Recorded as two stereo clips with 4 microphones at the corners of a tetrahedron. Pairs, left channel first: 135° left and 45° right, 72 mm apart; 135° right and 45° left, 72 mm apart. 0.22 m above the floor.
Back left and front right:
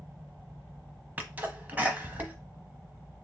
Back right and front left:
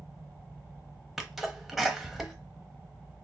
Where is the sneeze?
45° right, 1.0 m.